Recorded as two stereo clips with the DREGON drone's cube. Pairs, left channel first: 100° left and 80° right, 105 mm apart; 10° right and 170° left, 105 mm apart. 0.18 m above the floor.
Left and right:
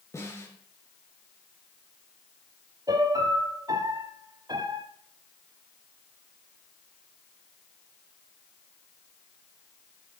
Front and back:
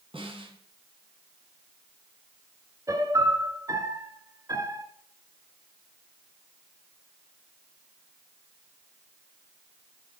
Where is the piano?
130° right, 1.1 m.